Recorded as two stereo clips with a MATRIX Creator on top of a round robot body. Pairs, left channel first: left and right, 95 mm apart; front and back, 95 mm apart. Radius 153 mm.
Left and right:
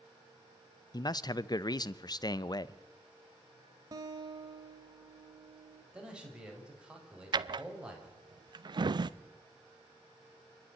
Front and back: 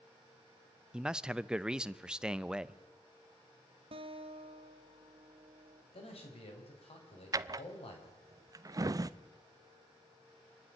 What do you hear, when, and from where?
0.9 s a man speaking: 100° left, 0.8 m
3.9 s a guitar: 145° right, 0.7 m
5.9 s a man speaking: 10° right, 4.5 m
7.3 s a drawer: 130° right, 0.6 m